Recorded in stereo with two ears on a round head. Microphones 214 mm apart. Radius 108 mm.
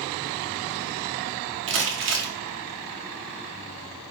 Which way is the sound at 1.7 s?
55° right (ahead or behind).